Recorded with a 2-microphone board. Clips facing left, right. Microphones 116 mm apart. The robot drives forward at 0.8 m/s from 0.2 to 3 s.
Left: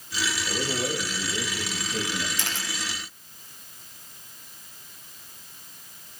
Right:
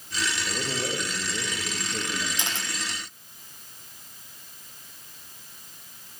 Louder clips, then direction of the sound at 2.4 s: Even; 20° right (ahead or behind).